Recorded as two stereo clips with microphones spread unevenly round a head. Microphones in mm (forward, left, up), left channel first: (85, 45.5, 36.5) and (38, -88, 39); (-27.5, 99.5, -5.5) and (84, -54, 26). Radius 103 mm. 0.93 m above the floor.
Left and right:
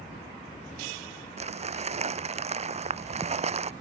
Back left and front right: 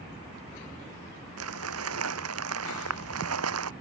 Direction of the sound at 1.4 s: 70° right.